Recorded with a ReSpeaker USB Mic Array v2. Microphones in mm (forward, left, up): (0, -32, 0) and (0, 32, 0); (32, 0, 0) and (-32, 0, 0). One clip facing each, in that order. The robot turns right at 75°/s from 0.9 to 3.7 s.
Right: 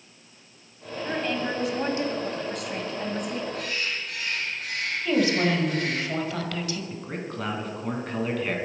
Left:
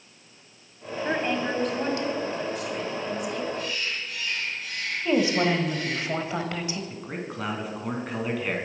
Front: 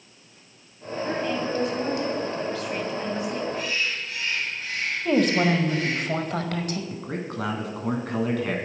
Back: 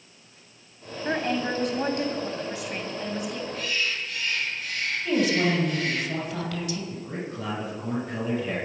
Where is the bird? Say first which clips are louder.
Even, front 1 dB; 65° right, 4 m; by 6.0 s 55° right, 4 m.